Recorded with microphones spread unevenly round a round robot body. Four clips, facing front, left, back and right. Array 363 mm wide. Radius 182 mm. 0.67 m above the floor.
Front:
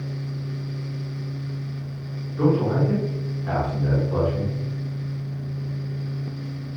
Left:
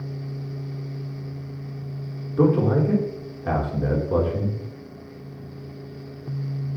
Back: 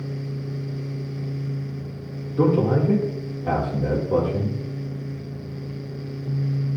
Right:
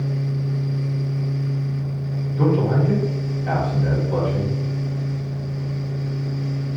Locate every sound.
2.4 s a man speaking: 140° left, 2.0 m